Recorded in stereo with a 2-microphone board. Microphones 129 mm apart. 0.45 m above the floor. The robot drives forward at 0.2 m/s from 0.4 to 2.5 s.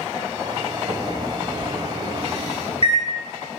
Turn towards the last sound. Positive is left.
turn(degrees=-50)  # may be behind; listen again after turning